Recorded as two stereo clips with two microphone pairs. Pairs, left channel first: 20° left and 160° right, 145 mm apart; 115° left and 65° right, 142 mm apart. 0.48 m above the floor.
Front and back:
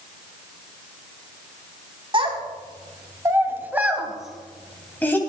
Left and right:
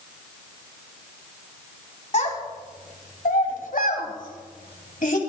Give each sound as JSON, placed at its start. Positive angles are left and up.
{"t": 2.1, "sound": "a child speaking", "azimuth_deg": 150, "distance_m": 2.0}